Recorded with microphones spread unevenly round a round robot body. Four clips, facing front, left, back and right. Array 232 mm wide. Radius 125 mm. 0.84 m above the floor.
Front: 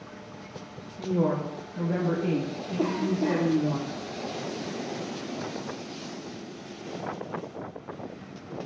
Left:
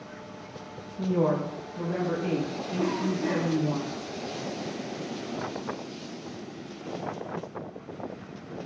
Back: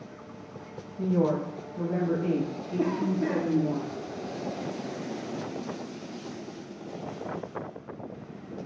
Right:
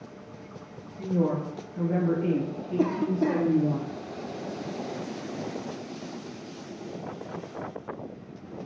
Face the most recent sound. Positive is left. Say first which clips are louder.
# right 3 dB, front 1 dB
turn(degrees=-70)